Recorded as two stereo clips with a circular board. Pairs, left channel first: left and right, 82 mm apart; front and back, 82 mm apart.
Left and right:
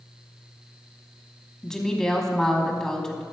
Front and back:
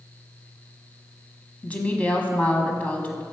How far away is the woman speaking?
About 1.0 m.